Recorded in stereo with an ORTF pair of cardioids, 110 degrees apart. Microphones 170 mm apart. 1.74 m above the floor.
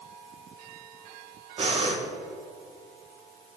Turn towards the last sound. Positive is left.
turn(degrees=-35)